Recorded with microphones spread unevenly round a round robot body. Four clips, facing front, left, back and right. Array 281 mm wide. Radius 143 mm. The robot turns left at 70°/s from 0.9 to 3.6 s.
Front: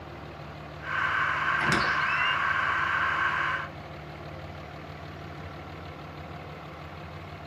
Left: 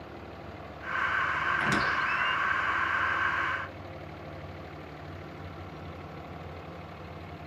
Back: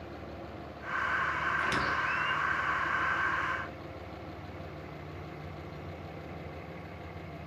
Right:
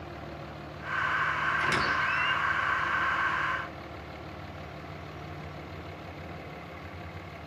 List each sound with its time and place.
1.6 s a squeak: 30° left, 2.5 m; by 2.4 s 25° right, 2.5 m